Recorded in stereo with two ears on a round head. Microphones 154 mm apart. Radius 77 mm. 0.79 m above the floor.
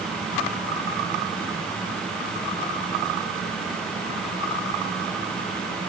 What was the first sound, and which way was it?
Only background noise.